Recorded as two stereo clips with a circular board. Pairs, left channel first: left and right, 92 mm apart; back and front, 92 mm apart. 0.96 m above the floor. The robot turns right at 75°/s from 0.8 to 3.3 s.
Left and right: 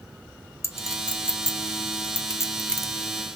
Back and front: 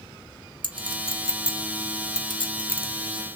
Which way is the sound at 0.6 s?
30° left.